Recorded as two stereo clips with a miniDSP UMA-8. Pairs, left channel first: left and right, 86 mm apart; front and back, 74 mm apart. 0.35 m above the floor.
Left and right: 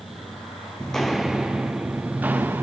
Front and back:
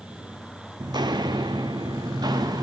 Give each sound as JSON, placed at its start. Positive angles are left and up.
{"t": 0.8, "sound": "footsteps", "azimuth_deg": 170, "distance_m": 1.0}